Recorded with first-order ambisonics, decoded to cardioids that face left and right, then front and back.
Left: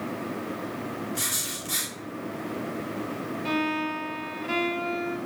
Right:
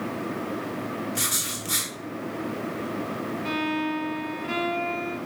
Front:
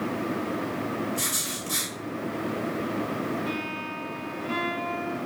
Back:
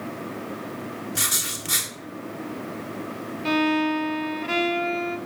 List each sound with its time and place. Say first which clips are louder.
1.1 s writing: right 2 dB, back 3 dB; 165° right, 2.5 m
3.5 s a violin: left 1 dB, back 9 dB; 175° left, 1.0 m